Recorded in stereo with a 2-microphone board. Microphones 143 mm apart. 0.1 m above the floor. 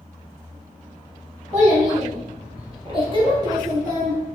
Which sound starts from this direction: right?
A child speaking, at 1.5 s.